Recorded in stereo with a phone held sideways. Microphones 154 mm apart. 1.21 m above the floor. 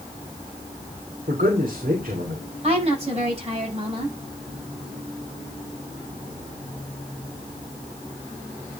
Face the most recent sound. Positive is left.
turn(degrees=-45)  # may be behind; listen again after turning